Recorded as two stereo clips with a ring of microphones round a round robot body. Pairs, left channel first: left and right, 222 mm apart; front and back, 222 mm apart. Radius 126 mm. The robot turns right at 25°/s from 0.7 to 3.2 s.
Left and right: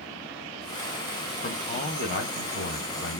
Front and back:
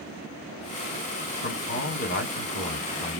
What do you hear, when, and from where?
1.4 s a man speaking: 30° left, 1.4 m; by 3.2 s 75° left, 1.4 m